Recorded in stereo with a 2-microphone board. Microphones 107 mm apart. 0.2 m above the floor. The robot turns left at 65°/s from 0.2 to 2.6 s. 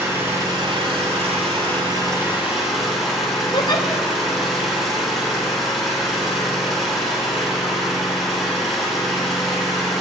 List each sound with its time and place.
0.0 s an engine running: 20° right, 5 m; by 10.0 s 175° right, 5 m
3.5 s a giggle: 45° left (ahead or behind), 1.1 m